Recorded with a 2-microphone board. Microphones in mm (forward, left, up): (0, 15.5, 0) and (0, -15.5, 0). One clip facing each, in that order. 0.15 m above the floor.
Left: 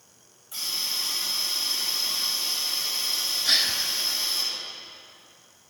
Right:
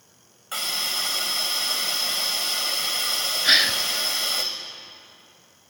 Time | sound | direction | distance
0.5 | a hiss | 75° right (ahead or behind) | 2.5 m
3.4 | a gasp | 40° right (ahead or behind) | 0.7 m